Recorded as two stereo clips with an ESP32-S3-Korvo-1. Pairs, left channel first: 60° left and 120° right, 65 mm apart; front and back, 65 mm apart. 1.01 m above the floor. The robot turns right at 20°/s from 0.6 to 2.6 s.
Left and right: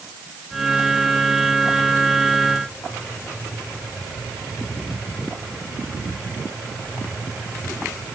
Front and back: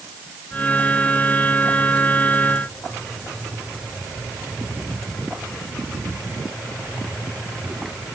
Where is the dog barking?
I don't hear a dog barking.